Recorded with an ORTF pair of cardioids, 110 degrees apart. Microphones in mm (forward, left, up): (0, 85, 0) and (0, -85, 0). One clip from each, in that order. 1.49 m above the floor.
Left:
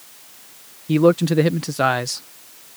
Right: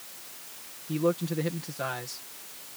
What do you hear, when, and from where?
0.9 s a man speaking: 70° left